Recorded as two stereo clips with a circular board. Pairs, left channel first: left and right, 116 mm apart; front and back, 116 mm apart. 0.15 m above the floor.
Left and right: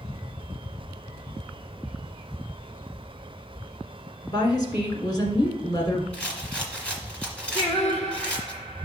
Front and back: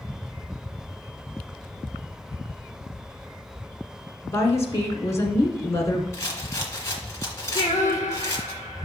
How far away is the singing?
About 2 m.